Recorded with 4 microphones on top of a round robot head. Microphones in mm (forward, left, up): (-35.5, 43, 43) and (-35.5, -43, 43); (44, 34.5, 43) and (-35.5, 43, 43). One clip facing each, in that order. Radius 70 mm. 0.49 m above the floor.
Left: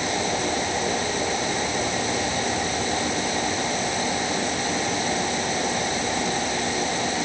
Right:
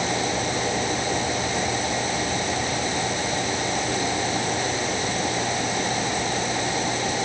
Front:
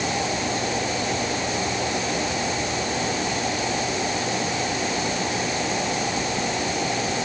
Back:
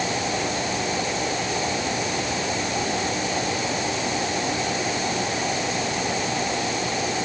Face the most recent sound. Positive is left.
No sound to turn to.